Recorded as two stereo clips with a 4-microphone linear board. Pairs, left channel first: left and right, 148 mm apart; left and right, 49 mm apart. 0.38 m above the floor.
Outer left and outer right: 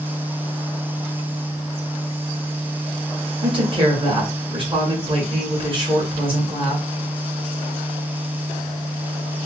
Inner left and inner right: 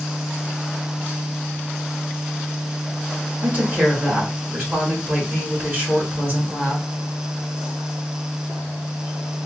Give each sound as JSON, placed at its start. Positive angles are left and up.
{"t": 3.4, "sound": "a woman speaking", "side_deg": -35, "distance_m": 1.3}